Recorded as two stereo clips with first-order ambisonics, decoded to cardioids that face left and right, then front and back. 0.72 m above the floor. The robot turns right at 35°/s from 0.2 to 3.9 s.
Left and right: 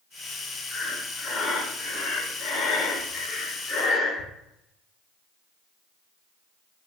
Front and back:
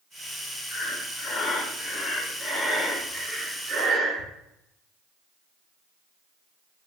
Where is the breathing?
25° left, 0.6 m; by 4.3 s 135° left, 0.6 m.